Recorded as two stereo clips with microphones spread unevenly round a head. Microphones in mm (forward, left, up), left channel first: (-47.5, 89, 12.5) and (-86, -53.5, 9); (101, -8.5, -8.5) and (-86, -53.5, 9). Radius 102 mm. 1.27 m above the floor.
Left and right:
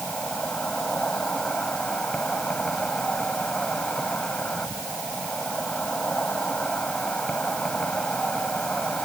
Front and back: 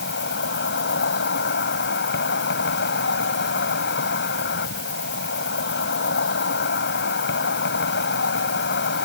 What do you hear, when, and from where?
0.0 s an insect: 10° right